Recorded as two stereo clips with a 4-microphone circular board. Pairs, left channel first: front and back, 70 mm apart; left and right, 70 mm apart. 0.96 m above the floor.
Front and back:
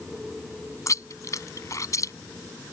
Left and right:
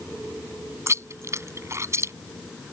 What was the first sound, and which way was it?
Chewing, 45° right.